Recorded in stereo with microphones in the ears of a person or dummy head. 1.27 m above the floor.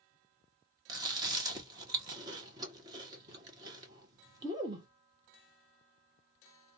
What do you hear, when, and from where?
0.9 s chewing: 20° right (ahead or behind), 0.9 m